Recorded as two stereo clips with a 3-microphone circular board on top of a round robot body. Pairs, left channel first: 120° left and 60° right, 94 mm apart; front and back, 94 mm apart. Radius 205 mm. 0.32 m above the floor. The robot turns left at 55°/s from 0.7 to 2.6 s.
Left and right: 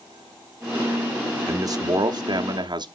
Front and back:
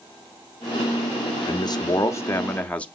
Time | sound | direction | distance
1.5 | a man speaking | 10° right | 1.2 m